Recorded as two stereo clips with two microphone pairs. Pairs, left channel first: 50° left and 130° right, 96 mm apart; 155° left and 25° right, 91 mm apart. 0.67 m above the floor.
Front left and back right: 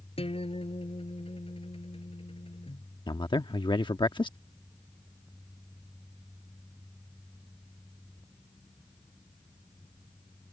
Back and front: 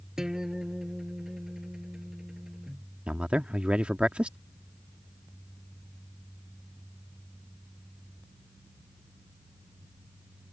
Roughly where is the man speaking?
Ahead left.